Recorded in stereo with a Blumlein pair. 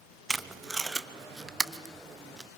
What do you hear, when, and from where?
0.3 s tape being pulled: 10° right, 0.5 m